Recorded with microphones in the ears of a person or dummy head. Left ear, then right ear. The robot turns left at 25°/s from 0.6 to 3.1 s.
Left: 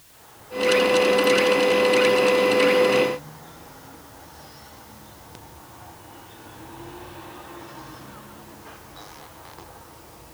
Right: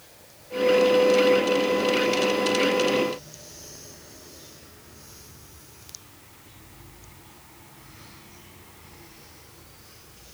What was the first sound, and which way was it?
Only background noise.